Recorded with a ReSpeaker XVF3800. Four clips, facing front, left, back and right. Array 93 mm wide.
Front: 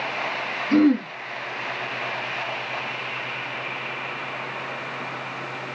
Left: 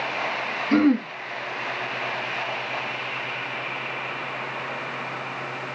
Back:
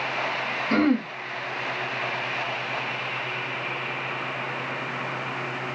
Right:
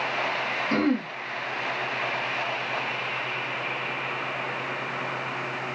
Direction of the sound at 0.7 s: 175° left.